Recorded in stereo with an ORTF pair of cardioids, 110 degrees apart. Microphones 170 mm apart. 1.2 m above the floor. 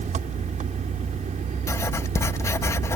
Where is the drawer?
I don't hear a drawer.